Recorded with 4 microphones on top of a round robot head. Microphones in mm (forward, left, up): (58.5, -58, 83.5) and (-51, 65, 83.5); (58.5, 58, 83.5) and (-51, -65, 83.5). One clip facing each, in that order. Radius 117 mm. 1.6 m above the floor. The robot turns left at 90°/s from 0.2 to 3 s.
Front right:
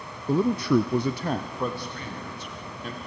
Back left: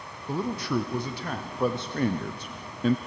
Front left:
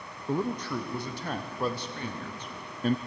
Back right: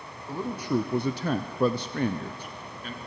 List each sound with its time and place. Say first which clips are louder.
0.3 s a man speaking: front right 7 dB, back right 1 dB; 20° right, 0.6 m; by 3.0 s 95° left, 0.6 m